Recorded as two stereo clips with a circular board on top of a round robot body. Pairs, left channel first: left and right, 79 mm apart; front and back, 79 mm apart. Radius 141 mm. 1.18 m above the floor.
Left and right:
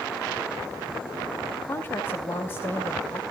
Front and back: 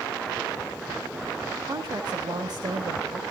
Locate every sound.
1.7 s a woman speaking: 150° left, 1.9 m